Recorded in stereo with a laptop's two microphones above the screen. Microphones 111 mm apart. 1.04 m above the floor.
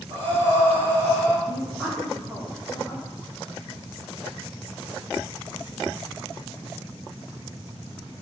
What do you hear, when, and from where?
0.1 s breathing: 50° right (ahead or behind), 3 m
1.5 s a woman speaking: 5° right (ahead or behind), 2.5 m